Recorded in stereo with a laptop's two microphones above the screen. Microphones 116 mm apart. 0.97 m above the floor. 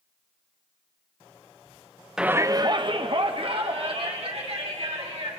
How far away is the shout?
About 0.6 m.